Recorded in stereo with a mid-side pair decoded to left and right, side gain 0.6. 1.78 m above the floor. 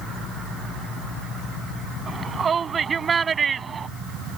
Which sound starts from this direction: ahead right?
A shout, at 2.1 s.